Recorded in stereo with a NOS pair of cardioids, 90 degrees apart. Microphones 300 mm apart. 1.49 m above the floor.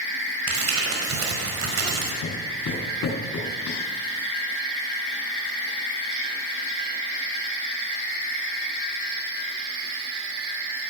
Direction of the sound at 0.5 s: 50° right.